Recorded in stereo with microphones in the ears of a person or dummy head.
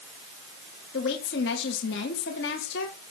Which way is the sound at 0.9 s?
65° left (ahead or behind).